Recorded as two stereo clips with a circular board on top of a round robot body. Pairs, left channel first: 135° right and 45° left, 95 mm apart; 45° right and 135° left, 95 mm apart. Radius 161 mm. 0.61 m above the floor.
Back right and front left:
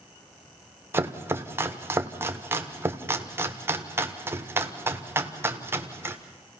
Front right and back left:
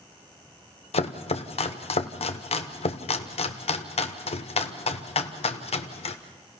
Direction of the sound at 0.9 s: 25° right.